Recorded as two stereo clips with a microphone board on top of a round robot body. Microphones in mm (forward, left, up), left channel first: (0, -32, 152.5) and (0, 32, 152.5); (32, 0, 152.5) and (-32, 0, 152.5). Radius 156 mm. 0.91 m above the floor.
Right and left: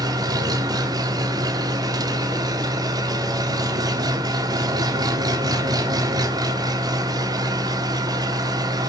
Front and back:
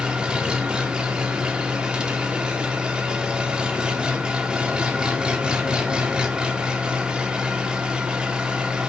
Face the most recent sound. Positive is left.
turn(degrees=105)